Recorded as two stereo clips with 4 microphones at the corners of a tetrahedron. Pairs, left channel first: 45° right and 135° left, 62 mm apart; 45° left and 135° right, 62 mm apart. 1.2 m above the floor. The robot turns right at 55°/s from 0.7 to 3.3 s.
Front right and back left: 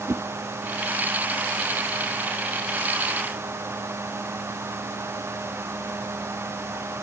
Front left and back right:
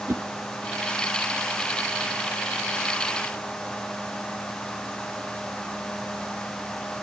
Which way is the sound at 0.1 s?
175° left.